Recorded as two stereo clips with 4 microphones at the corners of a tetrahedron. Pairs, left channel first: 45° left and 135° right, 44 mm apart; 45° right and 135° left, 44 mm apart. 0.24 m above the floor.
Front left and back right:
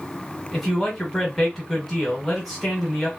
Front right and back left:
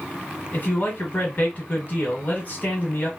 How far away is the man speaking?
About 1.5 m.